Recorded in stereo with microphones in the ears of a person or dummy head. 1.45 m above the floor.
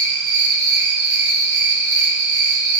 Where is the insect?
55° right (ahead or behind), 0.8 m.